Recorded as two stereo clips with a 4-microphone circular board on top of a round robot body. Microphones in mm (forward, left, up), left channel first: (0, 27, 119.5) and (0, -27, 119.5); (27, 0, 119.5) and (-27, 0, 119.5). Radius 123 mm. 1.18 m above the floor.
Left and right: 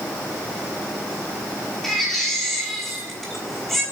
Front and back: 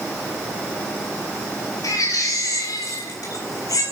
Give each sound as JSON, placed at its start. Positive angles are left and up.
{"t": 1.8, "sound": "a baby crying", "azimuth_deg": 5, "distance_m": 7.5}